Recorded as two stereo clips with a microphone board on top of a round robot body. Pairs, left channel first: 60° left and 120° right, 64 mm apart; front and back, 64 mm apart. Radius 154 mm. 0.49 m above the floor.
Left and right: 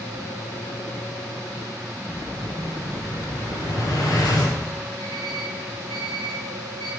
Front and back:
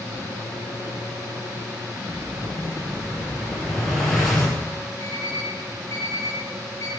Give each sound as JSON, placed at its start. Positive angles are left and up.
{"t": 2.1, "sound": "an explosion", "azimuth_deg": 90, "distance_m": 3.0}
{"t": 5.0, "sound": "an alarm clock", "azimuth_deg": 50, "distance_m": 3.5}